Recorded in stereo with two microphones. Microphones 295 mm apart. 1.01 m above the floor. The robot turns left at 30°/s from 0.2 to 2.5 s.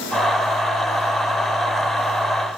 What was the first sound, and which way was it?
Only background noise.